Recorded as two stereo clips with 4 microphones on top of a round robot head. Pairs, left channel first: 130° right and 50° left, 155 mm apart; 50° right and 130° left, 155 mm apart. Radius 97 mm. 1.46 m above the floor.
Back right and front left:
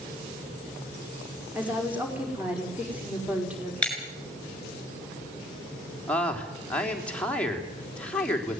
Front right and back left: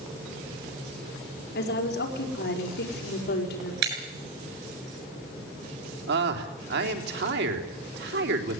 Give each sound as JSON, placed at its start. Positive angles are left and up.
{"t": 1.6, "sound": "a woman speaking", "azimuth_deg": -35, "distance_m": 5.0}
{"t": 3.8, "sound": "breaking glass", "azimuth_deg": 145, "distance_m": 7.0}
{"t": 6.1, "sound": "a man speaking", "azimuth_deg": 145, "distance_m": 3.5}